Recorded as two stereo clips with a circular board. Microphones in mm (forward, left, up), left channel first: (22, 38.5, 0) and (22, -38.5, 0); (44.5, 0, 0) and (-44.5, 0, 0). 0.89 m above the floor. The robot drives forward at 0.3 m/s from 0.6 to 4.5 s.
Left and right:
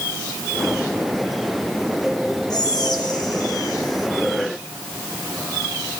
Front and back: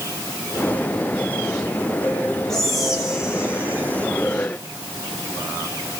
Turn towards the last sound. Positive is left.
turn(degrees=125)